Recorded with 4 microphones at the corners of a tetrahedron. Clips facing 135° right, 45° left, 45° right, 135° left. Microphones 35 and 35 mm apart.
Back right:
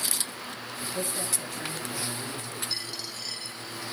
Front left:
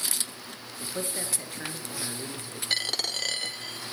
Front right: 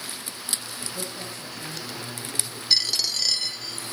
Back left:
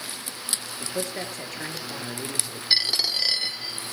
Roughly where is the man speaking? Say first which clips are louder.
Back right 1 dB, back left 4 dB; behind left.